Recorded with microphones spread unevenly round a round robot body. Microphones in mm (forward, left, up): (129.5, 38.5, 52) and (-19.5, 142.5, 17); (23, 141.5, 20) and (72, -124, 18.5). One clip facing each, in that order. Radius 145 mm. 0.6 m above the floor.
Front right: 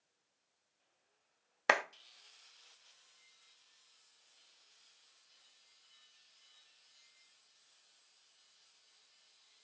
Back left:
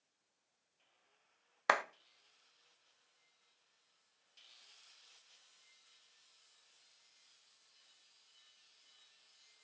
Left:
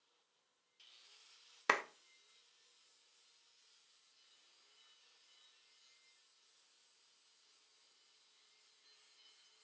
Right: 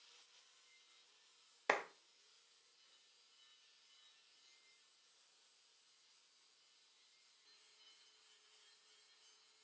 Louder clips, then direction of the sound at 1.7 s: Front right 2 dB, even; 35° left.